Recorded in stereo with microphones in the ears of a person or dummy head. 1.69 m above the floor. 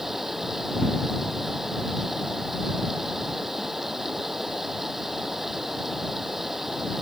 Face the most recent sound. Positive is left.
turn(degrees=0)  # may be behind; listen again after turning